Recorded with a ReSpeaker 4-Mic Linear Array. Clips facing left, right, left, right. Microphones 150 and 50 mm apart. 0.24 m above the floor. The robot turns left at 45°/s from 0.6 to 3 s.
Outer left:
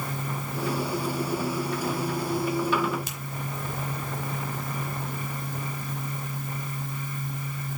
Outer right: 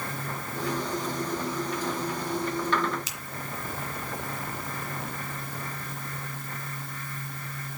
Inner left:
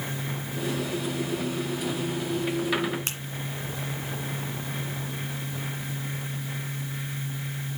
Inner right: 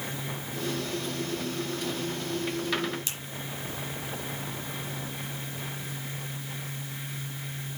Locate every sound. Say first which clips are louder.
3.1 s a finger snap: outer left 3 dB, inner left 4 dB; 55° left (ahead or behind), 1.9 m